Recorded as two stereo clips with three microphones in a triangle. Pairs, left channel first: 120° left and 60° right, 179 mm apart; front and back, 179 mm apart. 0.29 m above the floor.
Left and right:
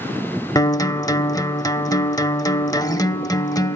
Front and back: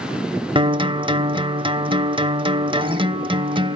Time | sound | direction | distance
0.6 | a guitar | 165° left | 0.6 m